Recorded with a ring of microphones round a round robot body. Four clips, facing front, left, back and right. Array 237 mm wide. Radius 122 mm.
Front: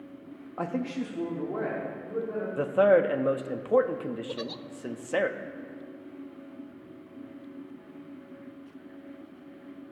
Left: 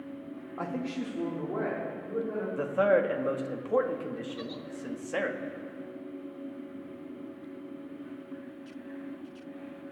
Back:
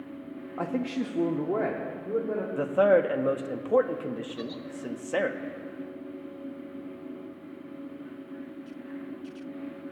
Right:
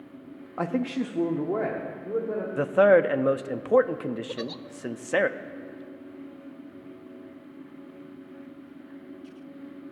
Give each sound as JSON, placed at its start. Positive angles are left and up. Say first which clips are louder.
{"t": 0.6, "sound": "a man speaking", "louder": "right 7 dB, back 1 dB", "azimuth_deg": -85, "distance_m": 0.6}
{"t": 2.6, "sound": "a man speaking", "louder": "right 7 dB, front 1 dB", "azimuth_deg": -90, "distance_m": 0.6}
{"t": 4.3, "sound": "a giggle", "louder": "right 4 dB, even", "azimuth_deg": -45, "distance_m": 0.5}